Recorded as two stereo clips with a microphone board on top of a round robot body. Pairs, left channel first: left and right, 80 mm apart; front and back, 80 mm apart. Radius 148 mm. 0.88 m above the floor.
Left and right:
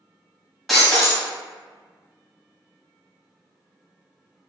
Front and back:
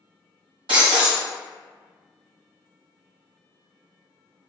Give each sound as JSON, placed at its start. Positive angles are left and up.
{"t": 0.7, "sound": "breaking glass", "azimuth_deg": 180, "distance_m": 1.5}